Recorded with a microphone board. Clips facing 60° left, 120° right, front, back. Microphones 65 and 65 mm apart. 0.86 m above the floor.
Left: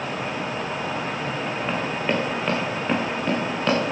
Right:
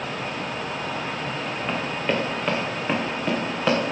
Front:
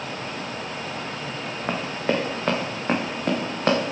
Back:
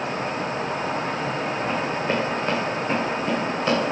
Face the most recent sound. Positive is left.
turn(degrees=-45)